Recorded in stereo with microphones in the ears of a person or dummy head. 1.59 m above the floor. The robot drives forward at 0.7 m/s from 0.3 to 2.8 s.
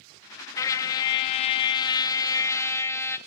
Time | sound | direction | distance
0.6 | a trumpet | 20° left (ahead or behind) | 0.8 m